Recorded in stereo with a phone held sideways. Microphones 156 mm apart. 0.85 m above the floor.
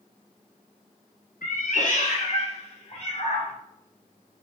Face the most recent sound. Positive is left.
turn(degrees=45)  # may be behind; listen again after turning